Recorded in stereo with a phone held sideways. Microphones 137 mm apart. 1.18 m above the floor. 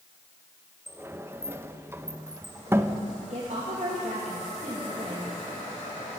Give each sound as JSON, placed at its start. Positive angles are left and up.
{"t": 0.9, "sound": "a sliding door", "side_deg": -20, "distance_m": 0.5}
{"t": 3.3, "sound": "a woman speaking", "side_deg": -60, "distance_m": 2.0}